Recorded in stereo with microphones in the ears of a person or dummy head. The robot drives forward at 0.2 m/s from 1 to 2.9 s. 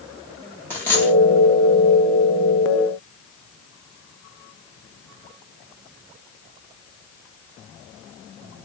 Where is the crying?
I don't hear crying.